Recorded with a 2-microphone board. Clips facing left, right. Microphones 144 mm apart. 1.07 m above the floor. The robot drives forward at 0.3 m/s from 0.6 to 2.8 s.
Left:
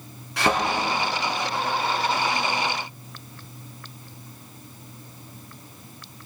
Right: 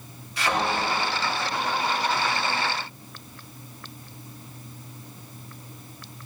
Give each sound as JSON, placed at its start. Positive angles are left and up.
{"t": 0.4, "sound": "a thud", "side_deg": 70, "distance_m": 2.5}